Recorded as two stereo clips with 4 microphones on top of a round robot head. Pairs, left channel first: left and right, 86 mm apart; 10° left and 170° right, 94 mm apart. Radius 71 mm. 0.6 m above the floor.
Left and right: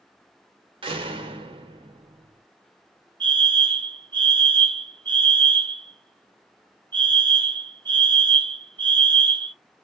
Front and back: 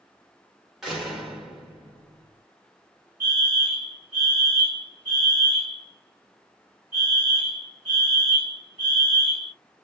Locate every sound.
0.8 s a door slam: 85° right, 1.5 m
3.2 s a fire alarm: 110° right, 3 m